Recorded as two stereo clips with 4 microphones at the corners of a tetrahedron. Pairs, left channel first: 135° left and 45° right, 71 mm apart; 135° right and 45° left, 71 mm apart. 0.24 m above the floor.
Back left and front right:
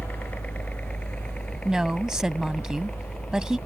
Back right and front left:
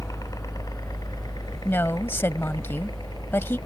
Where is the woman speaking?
115° right.